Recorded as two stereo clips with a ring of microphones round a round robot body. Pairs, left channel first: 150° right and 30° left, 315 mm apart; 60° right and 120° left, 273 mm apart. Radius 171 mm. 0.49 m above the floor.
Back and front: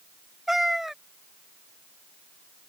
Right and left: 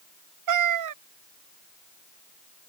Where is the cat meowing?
120° left.